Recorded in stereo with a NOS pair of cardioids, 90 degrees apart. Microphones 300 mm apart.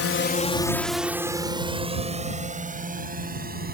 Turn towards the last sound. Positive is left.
turn(degrees=-30)